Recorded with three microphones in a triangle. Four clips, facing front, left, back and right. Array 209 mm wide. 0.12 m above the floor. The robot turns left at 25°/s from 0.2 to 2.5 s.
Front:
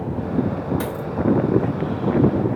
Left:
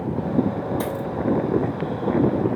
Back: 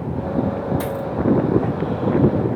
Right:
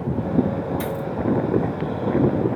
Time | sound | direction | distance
0.8 | a dropped coin | 90° left | 1.1 m